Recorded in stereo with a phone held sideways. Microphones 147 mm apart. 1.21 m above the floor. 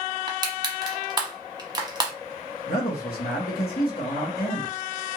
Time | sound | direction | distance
0.3 | crushing | 25° right (ahead or behind) | 0.7 m
2.7 | a man speaking | 85° left | 1.0 m